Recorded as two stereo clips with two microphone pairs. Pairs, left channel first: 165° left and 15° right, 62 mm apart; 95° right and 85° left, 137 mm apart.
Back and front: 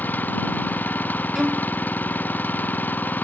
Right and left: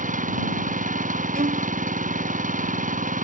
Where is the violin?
70° left.